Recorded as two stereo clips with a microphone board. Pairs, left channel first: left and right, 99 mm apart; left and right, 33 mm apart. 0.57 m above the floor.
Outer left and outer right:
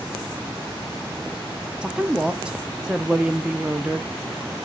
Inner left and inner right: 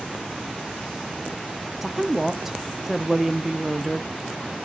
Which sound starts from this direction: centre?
A woman speaking, at 1.8 s.